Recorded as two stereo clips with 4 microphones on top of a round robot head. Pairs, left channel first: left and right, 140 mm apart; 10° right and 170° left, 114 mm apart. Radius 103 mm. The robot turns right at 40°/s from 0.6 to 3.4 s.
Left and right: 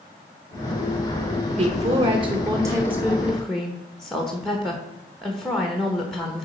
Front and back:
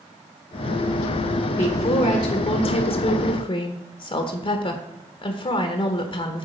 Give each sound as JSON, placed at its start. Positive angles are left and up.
{"t": 1.6, "sound": "a woman speaking", "azimuth_deg": -70, "distance_m": 1.0}